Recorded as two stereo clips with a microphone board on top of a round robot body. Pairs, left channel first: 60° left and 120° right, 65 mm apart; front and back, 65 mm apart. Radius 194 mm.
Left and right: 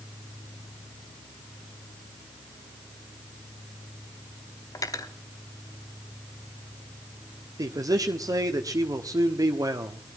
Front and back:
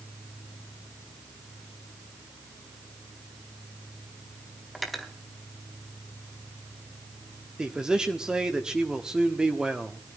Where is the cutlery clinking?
90° left, 2 m.